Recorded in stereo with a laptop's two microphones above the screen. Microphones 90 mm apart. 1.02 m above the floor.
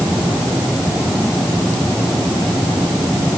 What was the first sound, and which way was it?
Only background noise.